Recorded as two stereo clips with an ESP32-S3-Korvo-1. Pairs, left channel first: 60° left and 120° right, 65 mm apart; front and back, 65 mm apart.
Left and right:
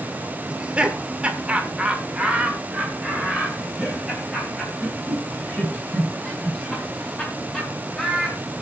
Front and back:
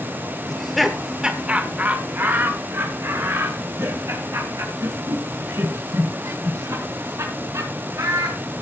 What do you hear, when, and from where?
0.5 s laughter: 75° right, 1.4 m; by 8.6 s 160° left, 5 m